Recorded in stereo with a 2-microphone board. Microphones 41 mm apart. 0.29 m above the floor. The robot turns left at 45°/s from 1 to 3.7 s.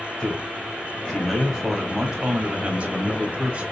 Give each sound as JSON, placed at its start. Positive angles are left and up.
{"t": 0.2, "sound": "a man speaking", "azimuth_deg": 25, "distance_m": 1.2}